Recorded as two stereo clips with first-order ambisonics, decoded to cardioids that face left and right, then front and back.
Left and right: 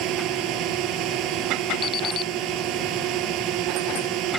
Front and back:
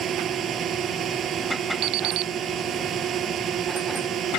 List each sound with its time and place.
0.0 s a drone: 125° right
1.8 s an alarm clock: 150° left